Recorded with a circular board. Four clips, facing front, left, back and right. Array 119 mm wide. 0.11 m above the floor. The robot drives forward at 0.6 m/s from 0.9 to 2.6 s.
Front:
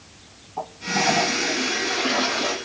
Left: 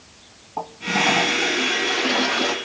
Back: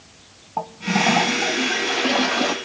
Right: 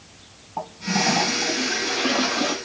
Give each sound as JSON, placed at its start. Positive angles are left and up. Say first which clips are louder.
{"t": 0.6, "sound": "a toilet flushing", "louder": "left 1 dB, back 3 dB", "azimuth_deg": -175, "distance_m": 1.7}